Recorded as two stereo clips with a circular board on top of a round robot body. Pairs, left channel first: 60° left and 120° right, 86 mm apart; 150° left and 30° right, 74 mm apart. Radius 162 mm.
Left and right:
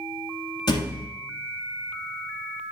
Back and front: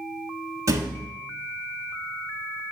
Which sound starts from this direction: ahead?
A thud, at 0.7 s.